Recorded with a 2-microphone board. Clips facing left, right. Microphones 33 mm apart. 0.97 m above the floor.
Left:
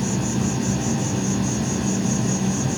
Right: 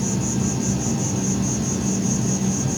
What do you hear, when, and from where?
0.0 s an insect: 35° left (ahead or behind), 1.0 m